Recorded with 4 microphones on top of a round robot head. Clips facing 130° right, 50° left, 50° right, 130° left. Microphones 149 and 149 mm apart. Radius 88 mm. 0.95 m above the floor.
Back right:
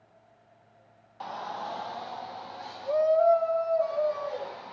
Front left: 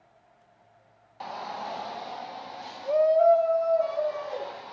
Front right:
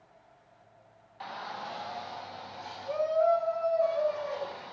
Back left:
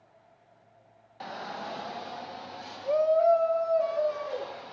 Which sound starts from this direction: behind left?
A shout, at 1.2 s.